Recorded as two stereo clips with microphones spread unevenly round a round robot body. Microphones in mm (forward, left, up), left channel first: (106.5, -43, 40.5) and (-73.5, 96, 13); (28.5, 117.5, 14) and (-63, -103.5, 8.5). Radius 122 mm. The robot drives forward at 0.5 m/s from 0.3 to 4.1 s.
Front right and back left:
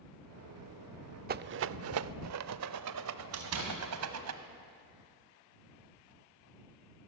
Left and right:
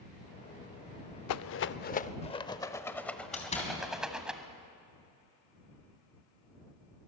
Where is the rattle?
90° left, 0.5 m; by 4.3 s 160° left, 1.5 m.